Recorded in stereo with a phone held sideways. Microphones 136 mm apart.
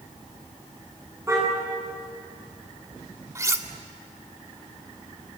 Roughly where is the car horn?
Right.